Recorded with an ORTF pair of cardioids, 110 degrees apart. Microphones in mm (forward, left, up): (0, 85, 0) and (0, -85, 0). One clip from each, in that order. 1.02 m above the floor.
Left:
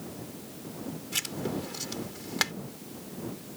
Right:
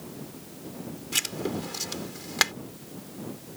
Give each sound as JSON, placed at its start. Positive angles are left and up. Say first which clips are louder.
{"t": 1.1, "sound": "writing", "louder": "right 4 dB", "azimuth_deg": -25}